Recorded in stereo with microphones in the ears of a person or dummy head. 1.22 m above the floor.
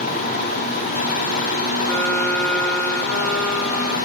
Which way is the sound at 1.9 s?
5° left (ahead or behind).